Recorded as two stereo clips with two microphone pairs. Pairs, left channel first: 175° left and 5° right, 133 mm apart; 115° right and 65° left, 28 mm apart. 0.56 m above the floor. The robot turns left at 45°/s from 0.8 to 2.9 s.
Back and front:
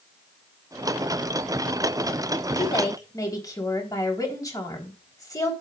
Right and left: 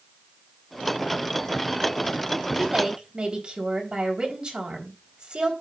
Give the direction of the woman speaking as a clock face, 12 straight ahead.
8 o'clock.